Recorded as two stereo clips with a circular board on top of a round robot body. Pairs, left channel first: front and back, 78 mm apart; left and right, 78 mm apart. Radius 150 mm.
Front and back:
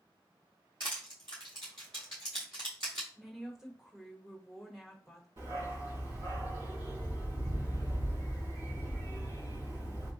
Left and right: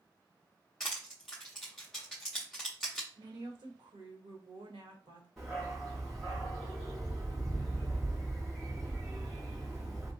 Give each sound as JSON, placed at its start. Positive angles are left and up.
{"t": 0.8, "sound": "crushing", "azimuth_deg": 175, "distance_m": 0.5}
{"t": 3.1, "sound": "a woman speaking", "azimuth_deg": -95, "distance_m": 1.4}
{"t": 5.4, "sound": "a dog barking", "azimuth_deg": 180, "distance_m": 2.5}